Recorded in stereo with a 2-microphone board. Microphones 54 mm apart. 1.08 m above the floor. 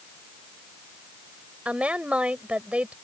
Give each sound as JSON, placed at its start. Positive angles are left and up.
{"t": 1.6, "sound": "a woman speaking", "side_deg": -20}